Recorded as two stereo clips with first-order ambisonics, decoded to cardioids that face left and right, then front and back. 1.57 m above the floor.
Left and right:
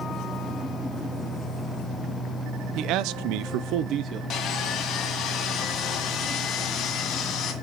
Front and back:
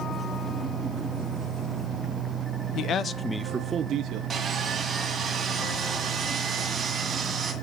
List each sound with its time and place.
2.8 s a man speaking: 50° right, 0.7 m; by 4.2 s 140° right, 0.7 m
4.3 s sawing: 120° left, 1.9 m